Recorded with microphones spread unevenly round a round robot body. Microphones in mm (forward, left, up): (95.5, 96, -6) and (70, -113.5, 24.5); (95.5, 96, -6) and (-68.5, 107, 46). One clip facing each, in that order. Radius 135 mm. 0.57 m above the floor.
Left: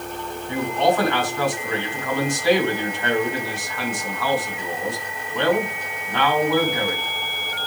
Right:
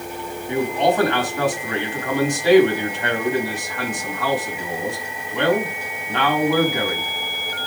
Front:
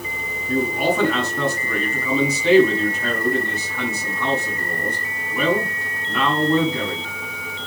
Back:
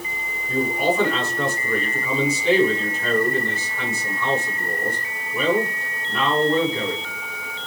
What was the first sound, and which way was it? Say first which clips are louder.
A man speaking: right 1 dB, front 1 dB; 20° right.